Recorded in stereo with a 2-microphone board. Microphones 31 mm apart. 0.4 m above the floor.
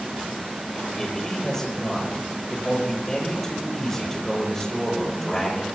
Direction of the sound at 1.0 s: 10° left (ahead or behind).